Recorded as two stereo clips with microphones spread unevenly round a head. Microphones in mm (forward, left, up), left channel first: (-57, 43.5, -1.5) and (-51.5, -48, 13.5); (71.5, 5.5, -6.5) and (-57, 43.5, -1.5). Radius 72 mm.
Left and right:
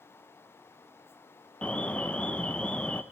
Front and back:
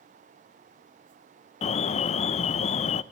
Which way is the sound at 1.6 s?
20° left.